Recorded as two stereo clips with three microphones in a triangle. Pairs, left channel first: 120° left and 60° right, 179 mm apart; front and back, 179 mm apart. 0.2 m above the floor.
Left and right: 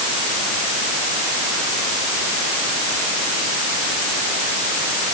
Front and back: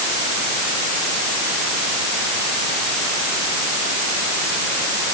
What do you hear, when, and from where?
Only background noise.